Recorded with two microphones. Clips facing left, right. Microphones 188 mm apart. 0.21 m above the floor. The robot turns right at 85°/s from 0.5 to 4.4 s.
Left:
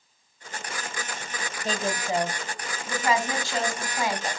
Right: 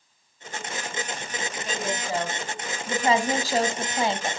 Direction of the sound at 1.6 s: 105° left.